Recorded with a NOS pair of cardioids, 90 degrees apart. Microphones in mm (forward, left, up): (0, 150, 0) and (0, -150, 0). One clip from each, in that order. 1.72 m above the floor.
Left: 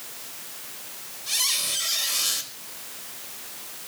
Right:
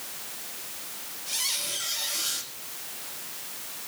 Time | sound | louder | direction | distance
1.3 | a squeak | left 5 dB | 65° left | 6 m